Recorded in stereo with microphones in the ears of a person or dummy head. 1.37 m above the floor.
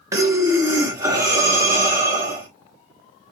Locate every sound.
0.1 s breathing: 20° right (ahead or behind), 0.9 m